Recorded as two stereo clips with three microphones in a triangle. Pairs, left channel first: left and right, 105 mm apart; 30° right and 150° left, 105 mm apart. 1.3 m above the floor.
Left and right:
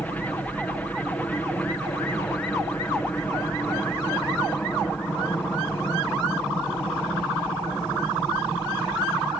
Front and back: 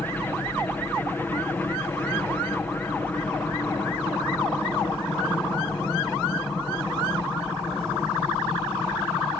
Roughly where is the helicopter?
Ahead left.